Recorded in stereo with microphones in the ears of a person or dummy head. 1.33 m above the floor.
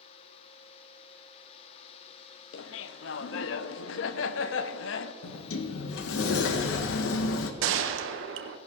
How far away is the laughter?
About 0.7 m.